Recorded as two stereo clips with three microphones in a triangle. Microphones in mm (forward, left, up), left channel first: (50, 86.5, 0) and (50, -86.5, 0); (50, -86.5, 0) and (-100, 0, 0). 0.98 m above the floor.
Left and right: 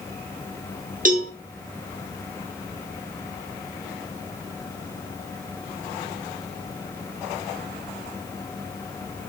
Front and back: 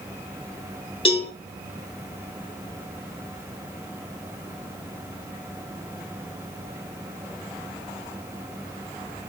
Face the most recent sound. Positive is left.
turn(degrees=-80)